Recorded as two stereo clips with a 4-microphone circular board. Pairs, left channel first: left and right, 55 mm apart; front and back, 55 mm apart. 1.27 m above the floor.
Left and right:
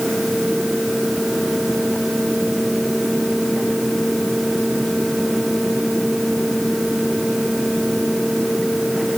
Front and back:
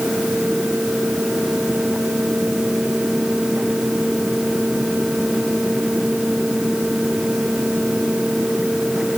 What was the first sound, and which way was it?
Only background noise.